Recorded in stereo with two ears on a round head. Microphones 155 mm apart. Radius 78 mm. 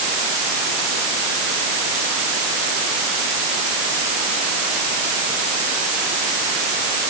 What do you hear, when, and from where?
Only background noise.